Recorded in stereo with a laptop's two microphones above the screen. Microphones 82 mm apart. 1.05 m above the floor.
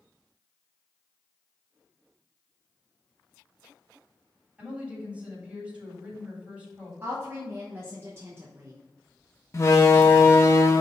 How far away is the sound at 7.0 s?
About 0.9 m.